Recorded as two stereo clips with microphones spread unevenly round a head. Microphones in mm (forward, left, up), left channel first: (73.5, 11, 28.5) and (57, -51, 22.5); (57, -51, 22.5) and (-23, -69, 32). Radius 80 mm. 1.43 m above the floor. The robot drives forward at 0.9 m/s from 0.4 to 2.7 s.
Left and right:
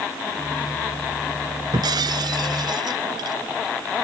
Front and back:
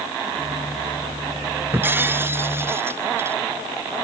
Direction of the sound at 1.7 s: 100° right.